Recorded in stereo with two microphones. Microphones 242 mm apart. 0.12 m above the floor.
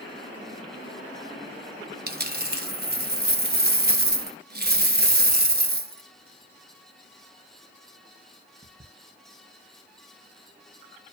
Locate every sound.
2.1 s a dropped coin: 40° right (ahead or behind), 0.8 m